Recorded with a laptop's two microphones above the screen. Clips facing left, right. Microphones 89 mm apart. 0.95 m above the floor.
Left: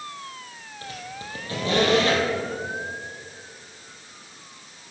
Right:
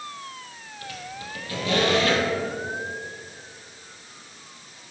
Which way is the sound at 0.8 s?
30° left (ahead or behind).